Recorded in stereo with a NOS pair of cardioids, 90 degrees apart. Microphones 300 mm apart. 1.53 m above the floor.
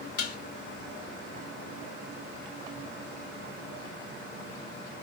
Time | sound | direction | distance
0.2 | dishes clattering | 55° left | 1.5 m